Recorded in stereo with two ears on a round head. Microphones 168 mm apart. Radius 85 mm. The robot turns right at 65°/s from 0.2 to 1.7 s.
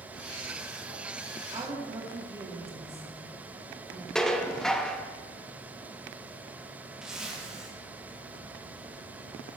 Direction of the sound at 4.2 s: 5° left (ahead or behind).